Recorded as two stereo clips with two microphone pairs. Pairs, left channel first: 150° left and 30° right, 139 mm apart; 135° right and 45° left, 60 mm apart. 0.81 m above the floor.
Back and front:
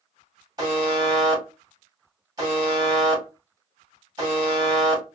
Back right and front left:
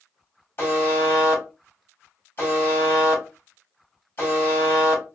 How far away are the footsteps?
No footsteps in this recording.